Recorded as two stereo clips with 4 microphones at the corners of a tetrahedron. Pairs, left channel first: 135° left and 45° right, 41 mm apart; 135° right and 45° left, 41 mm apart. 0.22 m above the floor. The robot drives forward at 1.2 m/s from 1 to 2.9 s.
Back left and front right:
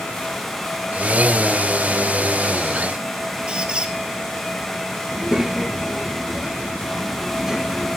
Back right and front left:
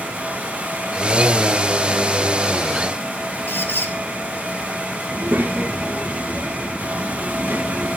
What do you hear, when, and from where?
3.5 s a squeak: 110° right, 1.6 m
5.1 s a child speaking: 30° left, 3 m